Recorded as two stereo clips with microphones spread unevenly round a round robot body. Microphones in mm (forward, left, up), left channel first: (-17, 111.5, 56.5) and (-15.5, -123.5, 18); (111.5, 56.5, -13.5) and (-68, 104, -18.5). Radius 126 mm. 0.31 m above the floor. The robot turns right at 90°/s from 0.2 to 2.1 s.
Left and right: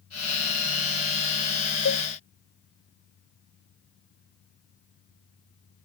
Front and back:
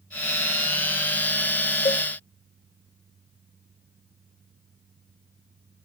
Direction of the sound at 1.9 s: 45° left.